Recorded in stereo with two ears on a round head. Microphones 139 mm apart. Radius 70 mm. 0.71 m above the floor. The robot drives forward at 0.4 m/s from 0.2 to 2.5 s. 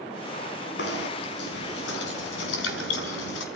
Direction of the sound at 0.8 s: 75° left (ahead or behind).